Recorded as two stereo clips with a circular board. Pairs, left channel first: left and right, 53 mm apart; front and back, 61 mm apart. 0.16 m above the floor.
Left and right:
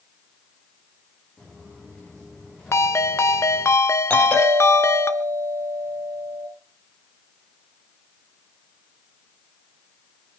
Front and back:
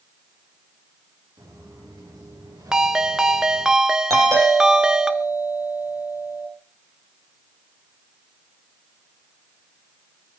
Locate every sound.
1.4 s footsteps: 170° left, 10 m; by 3.7 s 165° left, 11 m
2.7 s a ringtone: 100° left, 0.9 m
4.1 s a doorbell: 155° left, 8 m